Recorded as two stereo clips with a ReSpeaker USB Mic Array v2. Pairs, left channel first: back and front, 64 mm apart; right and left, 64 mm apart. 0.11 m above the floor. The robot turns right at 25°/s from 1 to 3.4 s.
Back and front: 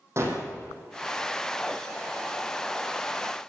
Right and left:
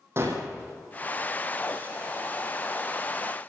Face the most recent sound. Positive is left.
turn(degrees=100)